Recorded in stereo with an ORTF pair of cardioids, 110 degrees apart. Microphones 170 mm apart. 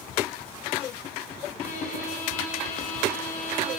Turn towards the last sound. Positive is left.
turn(degrees=60)